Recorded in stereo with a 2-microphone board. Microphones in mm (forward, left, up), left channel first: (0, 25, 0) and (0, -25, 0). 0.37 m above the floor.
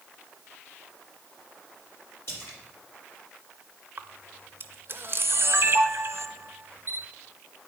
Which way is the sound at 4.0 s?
50° right (ahead or behind).